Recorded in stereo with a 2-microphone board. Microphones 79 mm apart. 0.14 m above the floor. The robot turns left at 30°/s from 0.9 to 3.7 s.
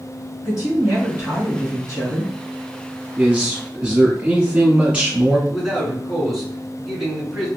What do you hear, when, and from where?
0.4 s a woman speaking: 125° left, 1.9 m; by 2.3 s 80° left, 1.9 m
3.2 s a man speaking: 20° right (ahead or behind), 1.4 m; by 5.4 s 10° right (ahead or behind), 1.4 m
5.5 s a man speaking: centre (ahead or behind), 1.4 m